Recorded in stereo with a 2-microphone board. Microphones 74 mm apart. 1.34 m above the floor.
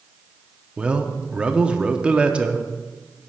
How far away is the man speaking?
About 0.6 m.